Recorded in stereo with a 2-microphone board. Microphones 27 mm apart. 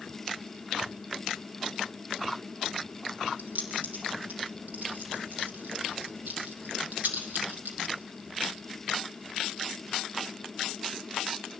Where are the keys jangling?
70° right (ahead or behind), 6 m; by 8.0 s 80° right, 5.5 m.